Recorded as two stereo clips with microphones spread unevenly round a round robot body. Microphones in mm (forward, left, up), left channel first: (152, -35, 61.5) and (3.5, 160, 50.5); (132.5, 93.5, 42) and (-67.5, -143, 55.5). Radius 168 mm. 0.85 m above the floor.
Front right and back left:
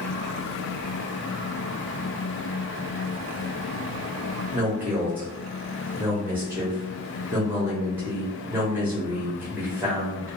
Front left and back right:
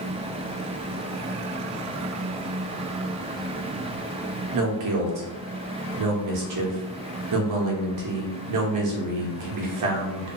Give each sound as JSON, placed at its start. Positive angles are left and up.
{"t": 4.5, "sound": "a man speaking", "azimuth_deg": -150, "distance_m": 0.8}